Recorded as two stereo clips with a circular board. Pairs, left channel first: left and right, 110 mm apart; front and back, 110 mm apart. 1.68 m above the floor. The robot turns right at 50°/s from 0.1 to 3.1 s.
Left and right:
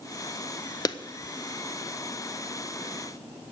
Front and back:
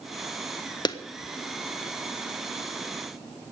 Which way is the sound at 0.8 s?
40° left.